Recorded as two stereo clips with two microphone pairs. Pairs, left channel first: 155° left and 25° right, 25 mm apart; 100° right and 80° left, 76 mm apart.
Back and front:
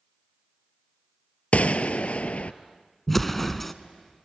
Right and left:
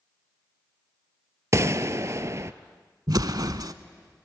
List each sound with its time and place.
1.5 s a gunshot: 125° left, 0.5 m
3.1 s an explosion: 75° left, 0.6 m